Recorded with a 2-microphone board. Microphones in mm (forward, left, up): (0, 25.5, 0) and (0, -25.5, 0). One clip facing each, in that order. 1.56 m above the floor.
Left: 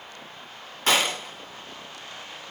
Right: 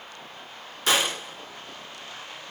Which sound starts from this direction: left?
A gunshot, at 0.9 s.